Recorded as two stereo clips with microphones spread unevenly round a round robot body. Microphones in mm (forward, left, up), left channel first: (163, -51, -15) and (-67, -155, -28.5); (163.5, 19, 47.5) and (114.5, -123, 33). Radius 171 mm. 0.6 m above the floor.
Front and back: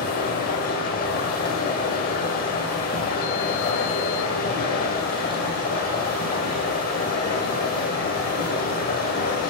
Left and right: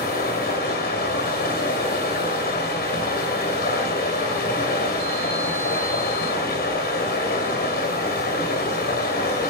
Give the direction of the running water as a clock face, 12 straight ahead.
9 o'clock.